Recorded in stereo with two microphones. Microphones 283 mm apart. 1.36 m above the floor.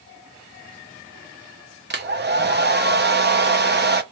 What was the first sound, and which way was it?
A hair dryer, 35° right (ahead or behind).